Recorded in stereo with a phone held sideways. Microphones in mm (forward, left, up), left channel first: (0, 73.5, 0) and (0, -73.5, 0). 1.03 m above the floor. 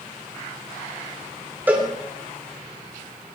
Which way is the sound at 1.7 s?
10° right (ahead or behind).